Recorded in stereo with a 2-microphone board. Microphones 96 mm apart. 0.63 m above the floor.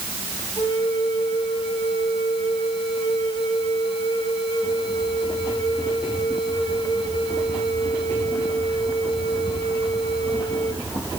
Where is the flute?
55° left (ahead or behind), 3.5 m.